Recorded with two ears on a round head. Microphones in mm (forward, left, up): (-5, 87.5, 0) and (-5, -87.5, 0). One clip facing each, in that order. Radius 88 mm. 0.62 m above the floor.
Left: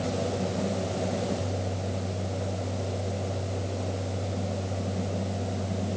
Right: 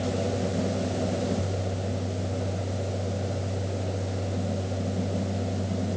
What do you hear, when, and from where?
Only background noise.